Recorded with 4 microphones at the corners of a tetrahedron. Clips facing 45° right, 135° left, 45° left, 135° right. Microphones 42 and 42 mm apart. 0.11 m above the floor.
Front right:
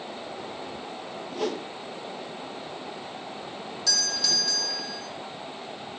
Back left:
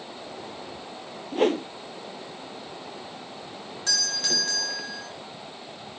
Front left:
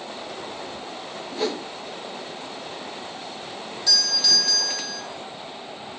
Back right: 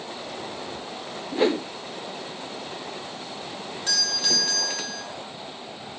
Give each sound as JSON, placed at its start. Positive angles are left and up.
{"t": 1.3, "sound": "a whoosh", "azimuth_deg": 170, "distance_m": 0.8}
{"t": 3.9, "sound": "a doorbell", "azimuth_deg": 180, "distance_m": 5.0}